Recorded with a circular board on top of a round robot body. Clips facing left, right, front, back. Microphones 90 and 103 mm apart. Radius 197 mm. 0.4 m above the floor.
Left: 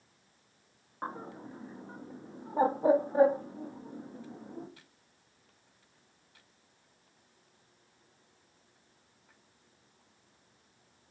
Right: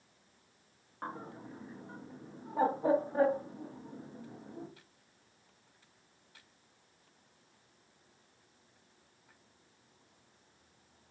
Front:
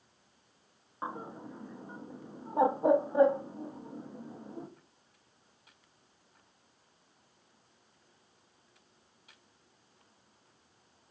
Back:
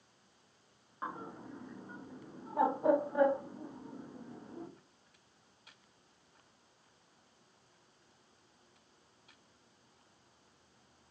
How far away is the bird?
About 0.6 m.